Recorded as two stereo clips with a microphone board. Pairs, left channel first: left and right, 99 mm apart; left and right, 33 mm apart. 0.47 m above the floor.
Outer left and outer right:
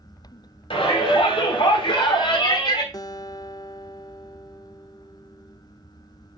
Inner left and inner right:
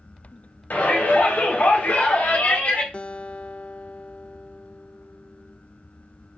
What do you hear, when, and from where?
0.7 s a shout: 65° left (ahead or behind), 3 m; by 2.8 s 50° left (ahead or behind), 2.5 m
2.9 s a guitar: 40° left (ahead or behind), 0.6 m